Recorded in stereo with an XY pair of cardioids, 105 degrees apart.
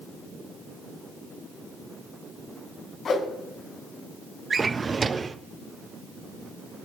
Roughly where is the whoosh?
Ahead left.